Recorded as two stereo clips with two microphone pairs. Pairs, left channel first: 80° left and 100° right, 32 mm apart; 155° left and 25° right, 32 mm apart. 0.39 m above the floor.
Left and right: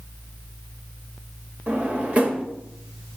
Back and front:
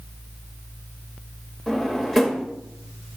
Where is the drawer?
120° right, 0.9 m.